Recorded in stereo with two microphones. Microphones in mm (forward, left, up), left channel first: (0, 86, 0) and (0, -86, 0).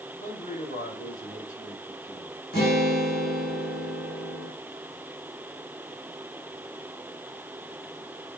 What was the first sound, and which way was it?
A man speaking, 55° left (ahead or behind).